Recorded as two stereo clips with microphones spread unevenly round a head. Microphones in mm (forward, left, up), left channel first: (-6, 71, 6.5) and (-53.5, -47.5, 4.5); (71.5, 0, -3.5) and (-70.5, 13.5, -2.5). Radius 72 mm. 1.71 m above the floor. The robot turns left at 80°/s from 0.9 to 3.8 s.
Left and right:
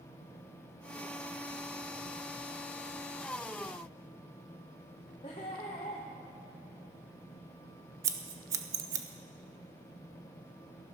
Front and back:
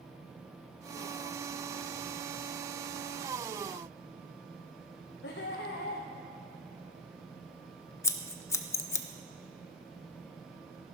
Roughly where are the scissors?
Ahead right.